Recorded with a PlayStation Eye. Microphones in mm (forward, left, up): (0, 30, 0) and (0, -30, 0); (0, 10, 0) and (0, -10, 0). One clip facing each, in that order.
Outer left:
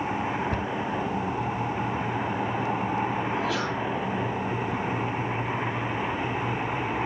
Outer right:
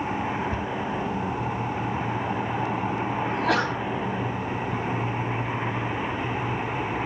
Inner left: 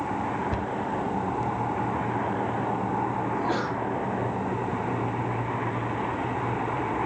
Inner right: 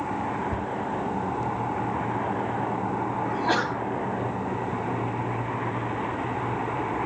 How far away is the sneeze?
About 3.5 m.